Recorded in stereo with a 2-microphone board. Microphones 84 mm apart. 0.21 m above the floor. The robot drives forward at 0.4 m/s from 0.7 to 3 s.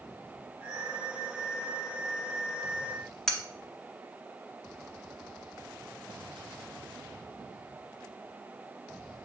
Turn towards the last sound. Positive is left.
turn(degrees=5)  # may be behind; listen again after turning